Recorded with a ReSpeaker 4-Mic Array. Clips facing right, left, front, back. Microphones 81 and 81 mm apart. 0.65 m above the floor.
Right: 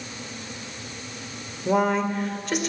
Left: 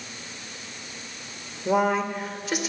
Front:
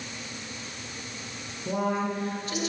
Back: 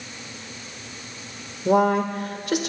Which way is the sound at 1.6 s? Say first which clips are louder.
Right 1 dB, back 9 dB; 175° left.